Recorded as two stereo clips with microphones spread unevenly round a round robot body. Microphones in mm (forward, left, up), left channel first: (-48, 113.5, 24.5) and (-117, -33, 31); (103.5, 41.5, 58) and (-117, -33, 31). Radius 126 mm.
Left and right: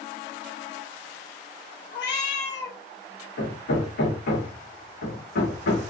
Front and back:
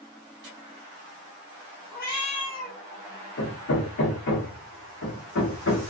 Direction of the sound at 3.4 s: 60° left.